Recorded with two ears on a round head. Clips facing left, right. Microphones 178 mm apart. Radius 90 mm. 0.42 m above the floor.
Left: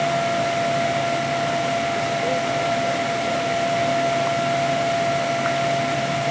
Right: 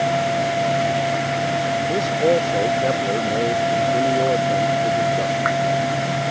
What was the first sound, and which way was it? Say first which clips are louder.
A man speaking: right 5 dB; 60° right (ahead or behind).